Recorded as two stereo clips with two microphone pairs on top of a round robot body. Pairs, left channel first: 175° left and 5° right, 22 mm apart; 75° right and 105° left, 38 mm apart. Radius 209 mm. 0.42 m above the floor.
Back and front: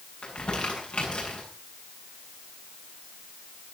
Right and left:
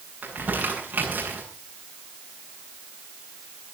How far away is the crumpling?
About 8 m.